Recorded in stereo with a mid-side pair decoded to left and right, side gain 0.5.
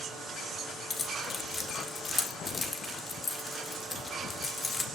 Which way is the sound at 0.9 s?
25° left.